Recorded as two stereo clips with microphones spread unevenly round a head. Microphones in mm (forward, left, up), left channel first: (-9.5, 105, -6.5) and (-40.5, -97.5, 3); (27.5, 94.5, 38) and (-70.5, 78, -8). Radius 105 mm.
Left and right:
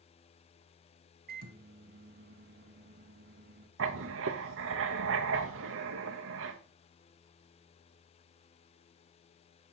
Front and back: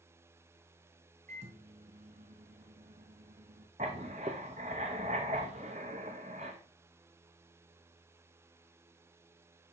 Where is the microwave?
120° right, 0.7 m.